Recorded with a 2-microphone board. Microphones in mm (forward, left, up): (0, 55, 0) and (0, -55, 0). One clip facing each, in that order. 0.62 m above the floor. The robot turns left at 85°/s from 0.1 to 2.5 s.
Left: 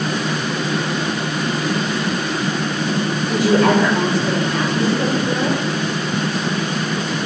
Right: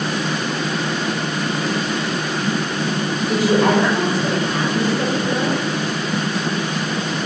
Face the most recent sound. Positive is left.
turn(degrees=-30)  # may be behind; listen again after turning